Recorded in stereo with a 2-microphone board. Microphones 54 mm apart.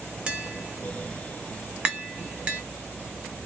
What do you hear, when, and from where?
0.3 s tapping: 20° right (ahead or behind), 0.6 m